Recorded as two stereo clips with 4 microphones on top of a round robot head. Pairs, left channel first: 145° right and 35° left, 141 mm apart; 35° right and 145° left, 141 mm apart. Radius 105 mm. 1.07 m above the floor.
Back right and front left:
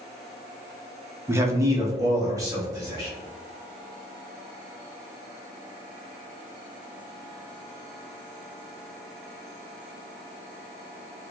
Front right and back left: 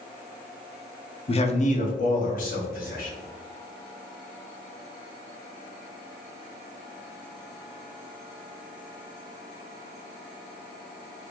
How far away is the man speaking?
About 0.7 m.